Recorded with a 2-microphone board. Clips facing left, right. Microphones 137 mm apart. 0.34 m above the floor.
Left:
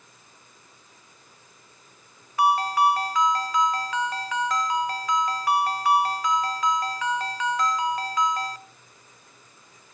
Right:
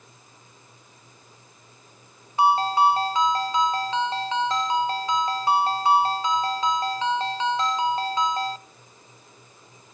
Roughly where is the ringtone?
Right.